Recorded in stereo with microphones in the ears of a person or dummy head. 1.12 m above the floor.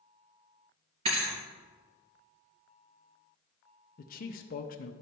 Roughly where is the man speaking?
Left.